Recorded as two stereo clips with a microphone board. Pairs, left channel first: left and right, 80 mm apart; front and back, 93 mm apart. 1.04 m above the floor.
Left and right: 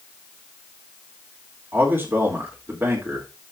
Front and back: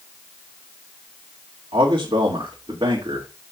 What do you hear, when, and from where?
1.7 s a man speaking: 150° right, 2.5 m